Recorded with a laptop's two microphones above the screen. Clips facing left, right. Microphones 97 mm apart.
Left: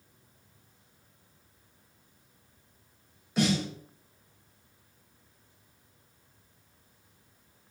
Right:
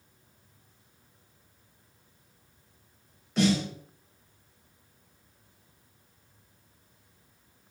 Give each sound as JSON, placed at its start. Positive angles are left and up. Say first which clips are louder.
{"t": 3.4, "sound": "a snare drum", "louder": "right 2 dB", "side_deg": 10, "distance_m": 1.6}